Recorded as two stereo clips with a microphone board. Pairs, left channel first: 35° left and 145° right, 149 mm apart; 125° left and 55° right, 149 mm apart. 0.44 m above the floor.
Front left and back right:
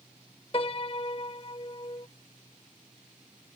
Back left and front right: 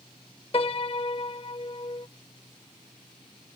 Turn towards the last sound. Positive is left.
turn(degrees=80)